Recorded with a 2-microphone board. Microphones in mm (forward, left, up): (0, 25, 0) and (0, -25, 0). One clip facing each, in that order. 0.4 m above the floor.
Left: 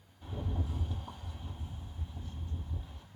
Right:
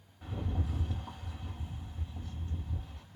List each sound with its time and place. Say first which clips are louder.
0.2 s a rattle: right 1 dB; 60° right (ahead or behind), 2.0 m